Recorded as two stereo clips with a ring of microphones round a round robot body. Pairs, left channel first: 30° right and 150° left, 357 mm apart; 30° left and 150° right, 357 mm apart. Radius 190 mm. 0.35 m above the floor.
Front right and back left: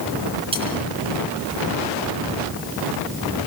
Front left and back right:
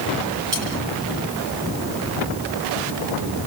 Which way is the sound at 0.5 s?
135° right.